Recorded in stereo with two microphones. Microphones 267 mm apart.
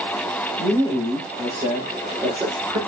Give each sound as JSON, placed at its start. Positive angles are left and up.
{"t": 0.6, "sound": "a man speaking", "side_deg": -10, "distance_m": 7.0}